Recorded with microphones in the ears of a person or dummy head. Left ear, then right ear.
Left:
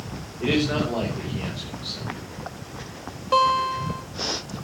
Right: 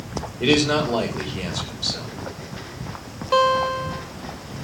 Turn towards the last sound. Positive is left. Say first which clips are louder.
# right 1 dB
turn(degrees=0)  # may be behind; listen again after turning